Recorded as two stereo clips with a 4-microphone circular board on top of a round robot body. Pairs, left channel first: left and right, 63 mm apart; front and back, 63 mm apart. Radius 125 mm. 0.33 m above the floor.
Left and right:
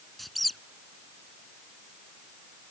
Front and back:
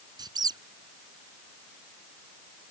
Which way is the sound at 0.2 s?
Straight behind.